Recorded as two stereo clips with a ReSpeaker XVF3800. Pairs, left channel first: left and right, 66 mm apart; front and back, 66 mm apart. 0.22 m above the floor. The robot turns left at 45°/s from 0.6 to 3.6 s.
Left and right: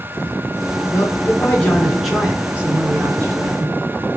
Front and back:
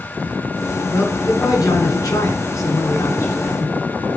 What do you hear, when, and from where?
0.9 s a man speaking: 50° left, 3.5 m; by 3.8 s 70° right, 3.5 m